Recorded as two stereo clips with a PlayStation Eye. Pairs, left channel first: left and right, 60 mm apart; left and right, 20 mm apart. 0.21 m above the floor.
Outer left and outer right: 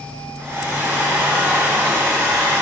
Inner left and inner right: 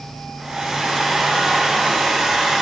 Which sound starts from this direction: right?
A hair dryer, at 0.4 s.